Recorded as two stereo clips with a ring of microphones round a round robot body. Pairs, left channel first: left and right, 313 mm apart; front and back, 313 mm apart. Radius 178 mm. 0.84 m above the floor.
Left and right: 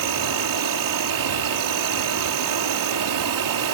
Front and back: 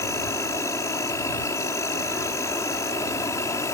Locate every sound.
0.0 s an insect: 80° right